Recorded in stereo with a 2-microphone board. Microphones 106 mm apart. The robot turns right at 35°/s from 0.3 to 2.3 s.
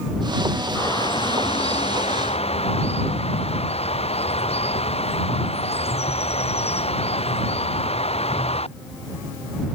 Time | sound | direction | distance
0.8 | a bird | 40° left | ?